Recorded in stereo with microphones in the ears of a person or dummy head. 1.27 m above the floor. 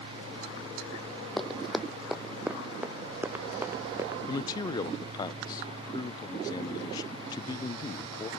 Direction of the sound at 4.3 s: 25° left (ahead or behind).